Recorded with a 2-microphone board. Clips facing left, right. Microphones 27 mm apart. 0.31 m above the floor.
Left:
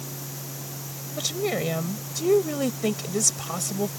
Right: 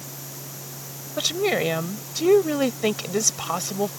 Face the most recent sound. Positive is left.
turn(degrees=-30)  # may be behind; listen again after turning